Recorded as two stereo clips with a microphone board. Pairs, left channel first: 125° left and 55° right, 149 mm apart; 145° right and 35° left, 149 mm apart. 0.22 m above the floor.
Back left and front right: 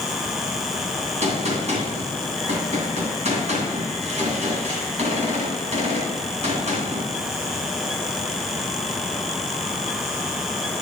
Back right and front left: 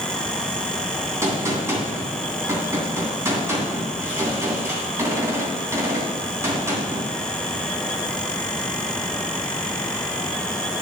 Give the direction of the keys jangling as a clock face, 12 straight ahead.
I don't hear keys jangling.